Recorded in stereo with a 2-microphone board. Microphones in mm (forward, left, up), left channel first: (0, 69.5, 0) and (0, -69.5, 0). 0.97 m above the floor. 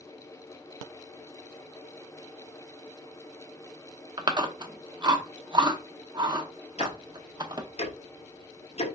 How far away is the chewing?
About 0.7 m.